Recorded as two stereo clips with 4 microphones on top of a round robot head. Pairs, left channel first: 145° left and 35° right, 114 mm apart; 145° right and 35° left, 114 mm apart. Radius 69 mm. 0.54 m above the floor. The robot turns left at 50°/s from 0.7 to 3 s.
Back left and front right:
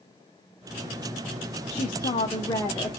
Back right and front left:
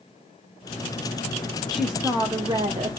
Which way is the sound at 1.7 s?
130° left.